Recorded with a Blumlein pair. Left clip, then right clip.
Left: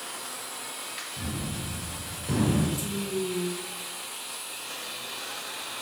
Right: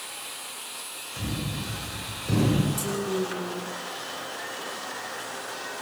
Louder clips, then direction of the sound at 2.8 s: Right 3 dB; 65° right.